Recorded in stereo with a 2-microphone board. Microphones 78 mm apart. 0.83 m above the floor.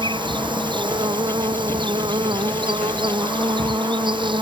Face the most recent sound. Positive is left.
turn(degrees=-85)